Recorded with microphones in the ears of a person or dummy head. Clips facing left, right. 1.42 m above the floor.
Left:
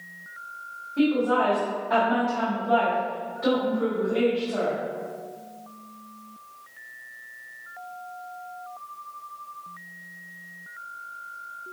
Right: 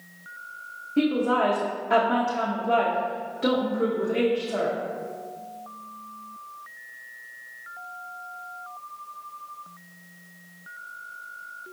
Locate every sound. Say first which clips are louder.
1.0 s a woman speaking: even; 35° right (ahead or behind), 0.6 m